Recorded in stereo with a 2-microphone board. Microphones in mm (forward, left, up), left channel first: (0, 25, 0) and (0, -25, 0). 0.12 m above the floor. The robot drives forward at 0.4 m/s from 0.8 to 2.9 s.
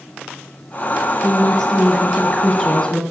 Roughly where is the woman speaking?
Centre.